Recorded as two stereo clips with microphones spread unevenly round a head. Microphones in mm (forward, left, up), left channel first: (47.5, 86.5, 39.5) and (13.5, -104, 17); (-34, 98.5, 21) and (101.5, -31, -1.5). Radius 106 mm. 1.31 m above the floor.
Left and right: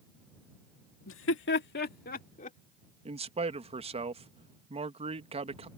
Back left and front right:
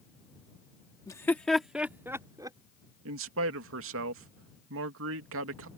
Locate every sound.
1.1 s laughter: 65° left; by 2.6 s 25° left
3.0 s a man speaking: 40° right